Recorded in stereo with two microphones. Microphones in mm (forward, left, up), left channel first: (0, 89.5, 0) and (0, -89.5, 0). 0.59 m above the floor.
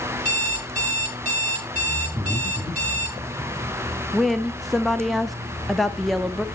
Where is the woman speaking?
Centre (ahead or behind), 0.6 m.